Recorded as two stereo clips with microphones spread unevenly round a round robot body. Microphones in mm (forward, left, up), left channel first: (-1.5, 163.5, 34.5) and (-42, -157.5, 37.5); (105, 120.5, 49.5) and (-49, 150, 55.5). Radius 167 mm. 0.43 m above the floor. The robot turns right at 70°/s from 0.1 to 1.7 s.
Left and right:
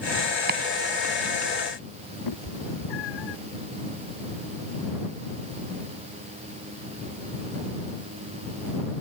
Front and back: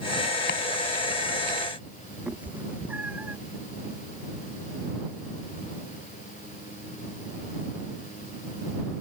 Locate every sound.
0.5 s chopping: 35° right; by 0.6 s 30° right
2.3 s a cat meowing: 90° left